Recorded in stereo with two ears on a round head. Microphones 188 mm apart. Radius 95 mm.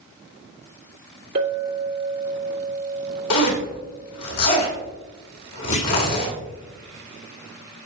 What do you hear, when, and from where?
1.4 s a clink: 45° right (ahead or behind), 2.5 m
3.3 s a zipper: 90° left, 2.5 m
5.7 s a clunk: 35° left (ahead or behind), 1.5 m